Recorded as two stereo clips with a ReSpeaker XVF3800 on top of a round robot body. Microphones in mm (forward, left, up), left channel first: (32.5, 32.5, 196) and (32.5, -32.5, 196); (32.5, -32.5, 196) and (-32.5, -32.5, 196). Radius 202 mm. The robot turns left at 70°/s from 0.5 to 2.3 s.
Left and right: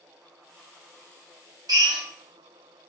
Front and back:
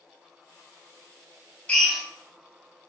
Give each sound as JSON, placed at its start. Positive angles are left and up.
{"t": 1.7, "sound": "a drill", "azimuth_deg": -75, "distance_m": 1.1}